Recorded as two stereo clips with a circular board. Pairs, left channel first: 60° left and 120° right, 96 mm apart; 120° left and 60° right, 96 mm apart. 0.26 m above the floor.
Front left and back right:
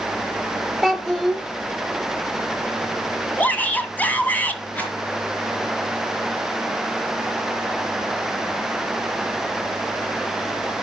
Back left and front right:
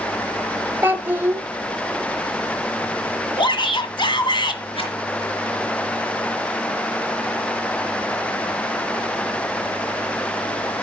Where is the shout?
130° left, 2 m.